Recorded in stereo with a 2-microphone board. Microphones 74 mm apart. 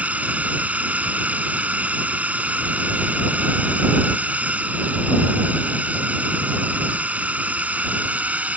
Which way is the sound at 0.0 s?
20° right (ahead or behind).